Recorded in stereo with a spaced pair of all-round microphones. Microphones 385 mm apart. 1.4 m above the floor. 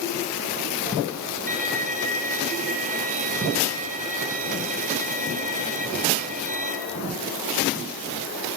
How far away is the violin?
About 3.5 m.